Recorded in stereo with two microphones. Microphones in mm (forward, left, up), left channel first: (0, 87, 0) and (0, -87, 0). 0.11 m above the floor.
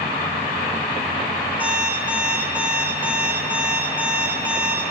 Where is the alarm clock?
5° right (ahead or behind), 4.5 m.